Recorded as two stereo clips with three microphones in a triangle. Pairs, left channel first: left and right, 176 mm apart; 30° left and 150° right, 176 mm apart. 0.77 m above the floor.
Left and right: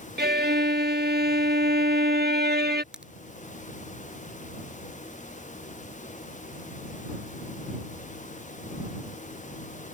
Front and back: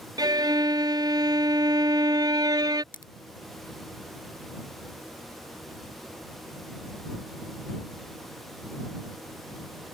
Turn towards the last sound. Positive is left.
turn(degrees=-5)